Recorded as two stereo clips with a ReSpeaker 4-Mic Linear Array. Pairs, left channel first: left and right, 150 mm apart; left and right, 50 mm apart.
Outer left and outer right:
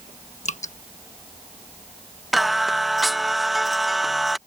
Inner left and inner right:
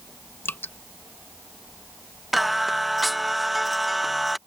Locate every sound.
0.5 s dripping: 50° left (ahead or behind)
2.3 s singing: centre (ahead or behind)